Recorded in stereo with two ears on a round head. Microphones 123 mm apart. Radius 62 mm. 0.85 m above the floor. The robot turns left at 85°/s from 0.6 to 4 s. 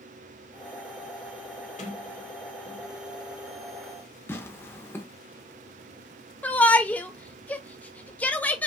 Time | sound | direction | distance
1.8 | a sliding door | 55° left (ahead or behind) | 2.0 m
4.3 | tearing paper | 20° left (ahead or behind) | 0.8 m
6.4 | a shout | 10° left (ahead or behind) | 0.7 m